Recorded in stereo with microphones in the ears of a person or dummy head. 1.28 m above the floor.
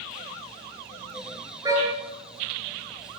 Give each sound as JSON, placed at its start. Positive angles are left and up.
{"t": 1.6, "sound": "a car horn", "side_deg": -15, "distance_m": 9.5}